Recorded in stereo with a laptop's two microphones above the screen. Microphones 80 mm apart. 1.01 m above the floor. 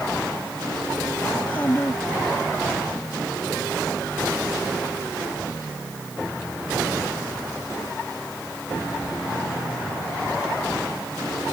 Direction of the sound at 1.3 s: 25° left (ahead or behind).